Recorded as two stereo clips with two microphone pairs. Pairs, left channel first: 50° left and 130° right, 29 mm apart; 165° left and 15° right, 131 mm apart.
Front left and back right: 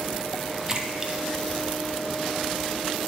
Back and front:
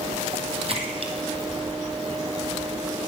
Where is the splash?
55° right, 1.9 m.